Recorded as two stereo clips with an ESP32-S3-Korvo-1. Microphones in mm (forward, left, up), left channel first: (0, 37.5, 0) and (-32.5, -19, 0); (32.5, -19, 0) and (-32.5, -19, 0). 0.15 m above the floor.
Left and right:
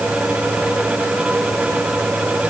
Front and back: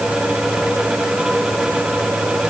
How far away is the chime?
No chime in this recording.